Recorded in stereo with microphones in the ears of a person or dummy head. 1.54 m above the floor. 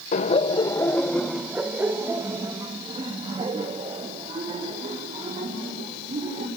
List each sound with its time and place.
0.1 s laughter: 45° left (ahead or behind), 1.0 m; by 6.5 s 35° right (ahead or behind), 5 m